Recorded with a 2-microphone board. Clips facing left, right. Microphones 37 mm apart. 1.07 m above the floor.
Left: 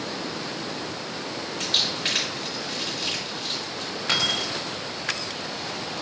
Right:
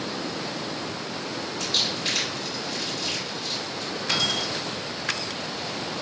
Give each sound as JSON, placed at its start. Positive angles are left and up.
{"t": 1.6, "sound": "crumpling", "side_deg": 65, "distance_m": 1.5}
{"t": 4.1, "sound": "keys jangling", "side_deg": 50, "distance_m": 0.9}